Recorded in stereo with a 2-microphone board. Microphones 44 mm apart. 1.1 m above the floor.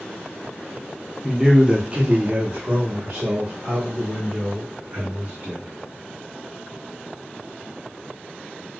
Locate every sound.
1.2 s a man speaking: 10° right (ahead or behind), 0.7 m; by 5.7 s 60° right (ahead or behind), 2.5 m